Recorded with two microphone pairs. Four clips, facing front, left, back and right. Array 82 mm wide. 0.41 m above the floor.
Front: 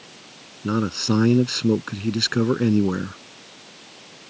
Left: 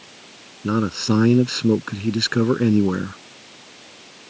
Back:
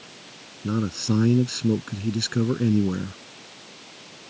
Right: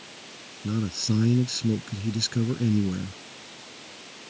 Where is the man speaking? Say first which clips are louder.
Left 8 dB, front 3 dB; 65° left.